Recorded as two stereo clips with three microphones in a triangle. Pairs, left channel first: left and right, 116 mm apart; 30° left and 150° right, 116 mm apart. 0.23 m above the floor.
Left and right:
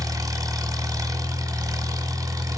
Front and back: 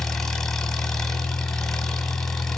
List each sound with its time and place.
0.0 s an engine running: 55° right, 1.3 m